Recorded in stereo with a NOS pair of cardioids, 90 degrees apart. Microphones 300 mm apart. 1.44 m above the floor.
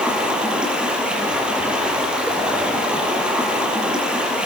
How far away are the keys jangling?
I don't hear keys jangling.